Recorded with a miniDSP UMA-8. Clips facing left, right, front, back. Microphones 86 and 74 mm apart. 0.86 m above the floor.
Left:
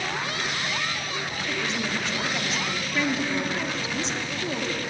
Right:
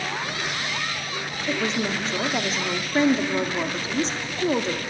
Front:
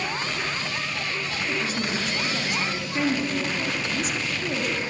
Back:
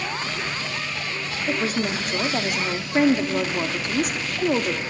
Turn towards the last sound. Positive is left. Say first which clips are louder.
# right 5 dB, back 5 dB
turn(degrees=-145)